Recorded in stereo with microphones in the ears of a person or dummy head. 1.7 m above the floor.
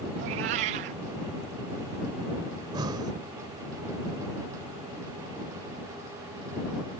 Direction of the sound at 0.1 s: 30° right (ahead or behind).